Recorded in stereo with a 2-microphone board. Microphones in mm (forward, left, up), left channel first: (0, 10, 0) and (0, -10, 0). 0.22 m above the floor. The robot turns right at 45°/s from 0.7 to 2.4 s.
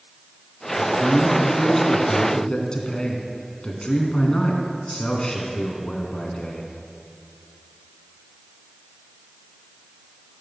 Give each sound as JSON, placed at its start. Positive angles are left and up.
{"t": 0.8, "sound": "a man speaking", "azimuth_deg": -20, "distance_m": 2.5}